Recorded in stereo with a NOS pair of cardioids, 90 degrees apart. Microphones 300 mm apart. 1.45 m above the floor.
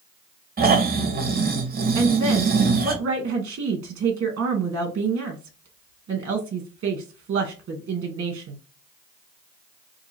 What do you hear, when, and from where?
0.6 s snoring: 30° right, 1.1 m
1.9 s a woman speaking: 50° right, 1.1 m